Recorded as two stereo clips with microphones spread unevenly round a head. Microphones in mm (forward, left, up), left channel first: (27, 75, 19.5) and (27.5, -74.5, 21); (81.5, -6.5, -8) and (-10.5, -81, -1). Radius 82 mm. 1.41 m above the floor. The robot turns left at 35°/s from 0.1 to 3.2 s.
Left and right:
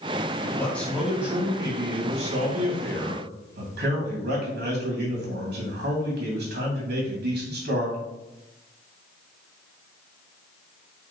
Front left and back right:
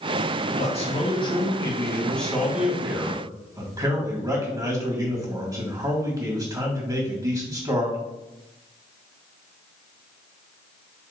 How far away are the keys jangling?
I don't hear keys jangling.